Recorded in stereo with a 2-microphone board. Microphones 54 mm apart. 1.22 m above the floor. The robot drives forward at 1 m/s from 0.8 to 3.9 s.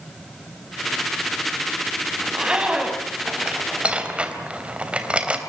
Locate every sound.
2.2 s a zipper: 15° right (ahead or behind), 5 m; by 5.4 s 20° right (ahead or behind), 3.5 m